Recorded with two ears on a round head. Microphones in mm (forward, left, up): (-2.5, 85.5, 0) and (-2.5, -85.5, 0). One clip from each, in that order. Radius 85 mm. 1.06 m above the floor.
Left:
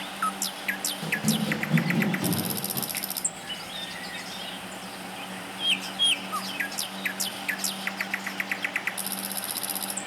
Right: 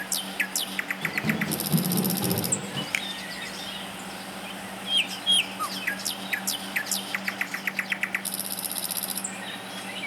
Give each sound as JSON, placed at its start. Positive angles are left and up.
{"t": 1.0, "sound": "running footsteps", "side_deg": 25, "distance_m": 1.1}
{"t": 2.9, "sound": "a finger snap", "side_deg": -45, "distance_m": 0.7}